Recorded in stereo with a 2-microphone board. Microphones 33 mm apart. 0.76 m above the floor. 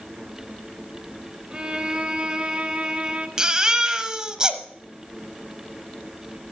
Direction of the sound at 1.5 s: 30° right (ahead or behind).